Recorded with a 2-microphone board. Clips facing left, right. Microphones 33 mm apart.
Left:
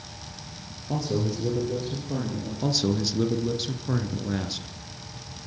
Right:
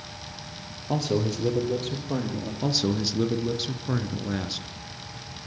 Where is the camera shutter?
No camera shutter in this recording.